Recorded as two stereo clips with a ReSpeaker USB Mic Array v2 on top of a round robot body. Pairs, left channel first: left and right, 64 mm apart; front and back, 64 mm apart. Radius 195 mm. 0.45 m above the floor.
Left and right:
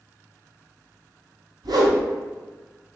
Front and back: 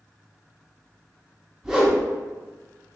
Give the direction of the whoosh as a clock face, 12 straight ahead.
3 o'clock.